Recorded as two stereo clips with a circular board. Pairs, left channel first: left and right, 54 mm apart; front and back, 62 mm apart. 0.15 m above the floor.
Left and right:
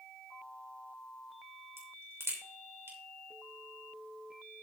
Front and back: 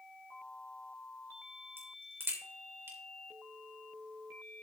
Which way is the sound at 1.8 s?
130° right.